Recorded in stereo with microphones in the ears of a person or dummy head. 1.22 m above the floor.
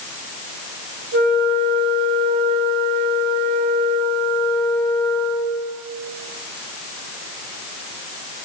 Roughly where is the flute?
Right.